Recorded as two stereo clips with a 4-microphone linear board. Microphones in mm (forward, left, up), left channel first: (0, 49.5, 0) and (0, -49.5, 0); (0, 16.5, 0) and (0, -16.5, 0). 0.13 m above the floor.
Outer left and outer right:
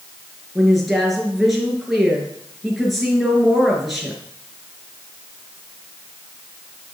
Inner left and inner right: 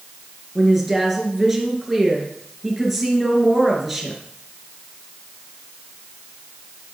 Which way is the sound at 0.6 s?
Centre (ahead or behind).